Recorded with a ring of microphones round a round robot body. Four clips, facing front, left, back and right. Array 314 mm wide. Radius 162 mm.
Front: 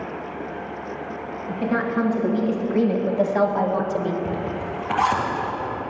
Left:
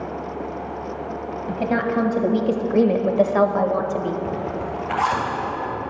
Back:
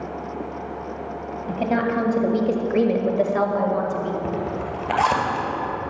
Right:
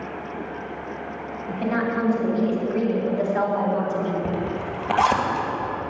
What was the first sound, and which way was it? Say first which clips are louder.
A woman speaking: left 2 dB, back 2 dB; 140° left.